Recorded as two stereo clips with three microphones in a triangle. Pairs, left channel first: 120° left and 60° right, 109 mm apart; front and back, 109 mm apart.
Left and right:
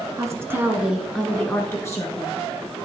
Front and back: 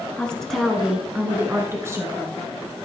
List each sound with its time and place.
0.2 s a woman speaking: 70° right, 1.2 m; by 2.4 s 145° left, 1.3 m